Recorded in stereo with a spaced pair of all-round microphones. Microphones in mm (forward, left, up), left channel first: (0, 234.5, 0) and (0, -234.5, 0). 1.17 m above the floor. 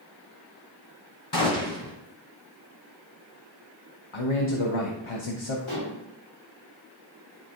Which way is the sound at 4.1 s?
85° left.